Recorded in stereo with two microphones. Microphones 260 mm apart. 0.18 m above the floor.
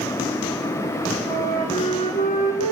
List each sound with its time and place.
1.3 s a flute: 30° left (ahead or behind), 7 m